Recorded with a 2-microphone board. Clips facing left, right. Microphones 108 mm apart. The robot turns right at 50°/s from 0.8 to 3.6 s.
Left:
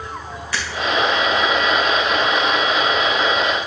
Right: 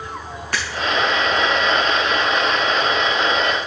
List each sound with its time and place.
0.5 s breaking glass: 55° right (ahead or behind), 3 m